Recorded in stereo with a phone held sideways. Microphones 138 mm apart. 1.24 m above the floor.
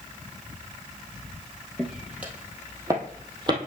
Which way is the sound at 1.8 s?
Centre (ahead or behind).